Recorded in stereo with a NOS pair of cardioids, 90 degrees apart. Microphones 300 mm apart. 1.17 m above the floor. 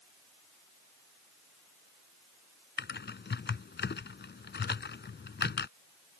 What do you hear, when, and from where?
2.8 s typing on a keyboard: 35° left